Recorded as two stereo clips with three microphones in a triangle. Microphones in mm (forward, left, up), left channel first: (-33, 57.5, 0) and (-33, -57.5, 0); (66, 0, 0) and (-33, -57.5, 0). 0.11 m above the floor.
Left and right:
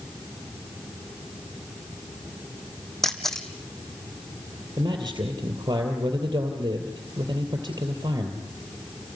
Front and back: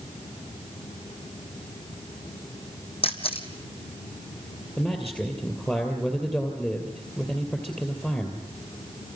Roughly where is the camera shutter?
Ahead.